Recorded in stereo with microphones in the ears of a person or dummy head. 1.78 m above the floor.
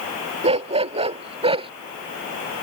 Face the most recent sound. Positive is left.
turn(degrees=-25)  # may be behind; listen again after turning